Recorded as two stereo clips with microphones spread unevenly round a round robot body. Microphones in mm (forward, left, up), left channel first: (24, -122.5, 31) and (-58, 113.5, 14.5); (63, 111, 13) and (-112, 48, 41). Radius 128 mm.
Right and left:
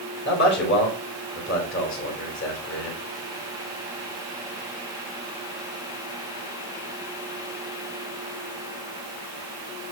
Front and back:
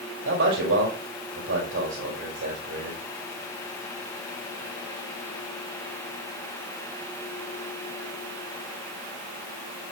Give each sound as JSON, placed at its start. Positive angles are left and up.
{"t": 0.2, "sound": "a man speaking", "azimuth_deg": -115, "distance_m": 5.0}